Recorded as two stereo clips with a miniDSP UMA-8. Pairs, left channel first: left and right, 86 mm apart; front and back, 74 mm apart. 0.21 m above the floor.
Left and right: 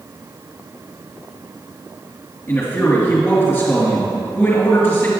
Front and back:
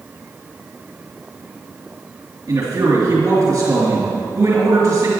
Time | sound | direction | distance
2.5 | a man speaking | 150° left | 2.5 m